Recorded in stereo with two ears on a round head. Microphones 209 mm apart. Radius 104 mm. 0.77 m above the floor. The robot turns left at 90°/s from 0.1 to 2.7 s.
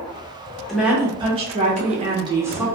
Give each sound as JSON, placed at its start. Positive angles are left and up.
{"t": 0.7, "sound": "a woman speaking", "side_deg": 0, "distance_m": 0.7}